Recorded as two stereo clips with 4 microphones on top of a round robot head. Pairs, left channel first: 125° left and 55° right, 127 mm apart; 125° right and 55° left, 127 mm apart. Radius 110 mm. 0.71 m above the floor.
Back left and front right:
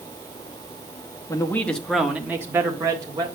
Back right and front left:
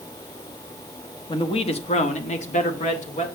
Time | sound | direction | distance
1.3 | a man speaking | 170° right | 1.4 m